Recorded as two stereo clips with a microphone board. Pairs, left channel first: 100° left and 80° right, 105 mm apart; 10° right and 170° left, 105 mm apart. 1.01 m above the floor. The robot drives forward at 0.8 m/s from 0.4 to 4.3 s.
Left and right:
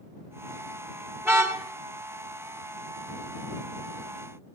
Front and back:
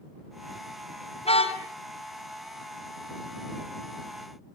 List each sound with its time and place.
1.2 s a car horn: 10° right, 3.5 m; by 1.6 s 15° right, 3 m